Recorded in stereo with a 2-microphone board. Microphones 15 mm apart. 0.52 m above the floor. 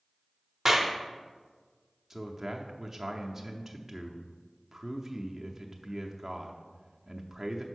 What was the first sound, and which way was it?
A clap, 25° right (ahead or behind).